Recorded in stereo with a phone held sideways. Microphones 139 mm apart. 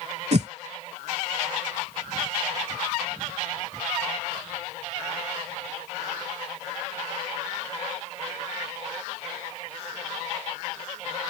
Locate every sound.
0.3 s a whoosh: 50° right (ahead or behind)